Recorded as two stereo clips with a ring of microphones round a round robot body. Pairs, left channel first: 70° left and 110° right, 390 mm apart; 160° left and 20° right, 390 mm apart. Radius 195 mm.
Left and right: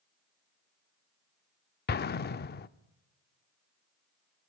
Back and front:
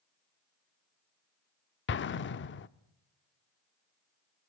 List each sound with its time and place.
1.9 s an explosion: 115° left, 0.6 m